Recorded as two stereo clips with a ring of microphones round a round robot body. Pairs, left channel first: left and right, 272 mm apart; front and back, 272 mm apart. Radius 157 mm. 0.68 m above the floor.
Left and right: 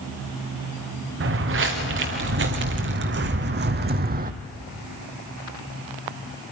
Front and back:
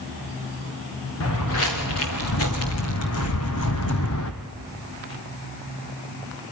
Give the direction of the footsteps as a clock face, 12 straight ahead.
2 o'clock.